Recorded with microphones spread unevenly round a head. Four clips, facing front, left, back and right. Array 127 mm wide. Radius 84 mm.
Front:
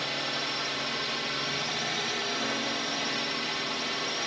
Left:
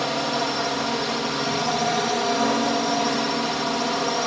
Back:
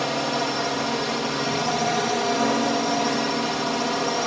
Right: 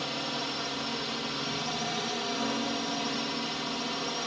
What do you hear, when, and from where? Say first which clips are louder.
0.0 s a drone: left 11 dB, back 10 dB; 135° left